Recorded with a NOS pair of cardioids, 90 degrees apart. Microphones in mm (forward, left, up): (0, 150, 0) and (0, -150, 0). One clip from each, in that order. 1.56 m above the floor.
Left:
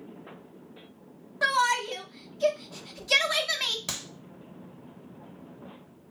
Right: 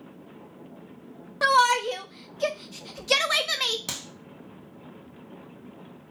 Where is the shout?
25° right, 0.6 m.